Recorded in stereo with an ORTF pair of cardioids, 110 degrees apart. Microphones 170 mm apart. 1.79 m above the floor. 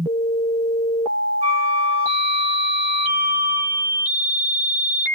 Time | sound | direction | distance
1.4 | a flute | 40° right | 0.5 m